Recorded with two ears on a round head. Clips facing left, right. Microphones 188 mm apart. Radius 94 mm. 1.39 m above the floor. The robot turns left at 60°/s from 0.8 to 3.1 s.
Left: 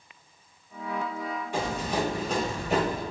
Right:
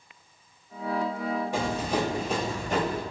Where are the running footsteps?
40° right (ahead or behind), 1.9 m; by 3.0 s 15° left (ahead or behind), 1.4 m.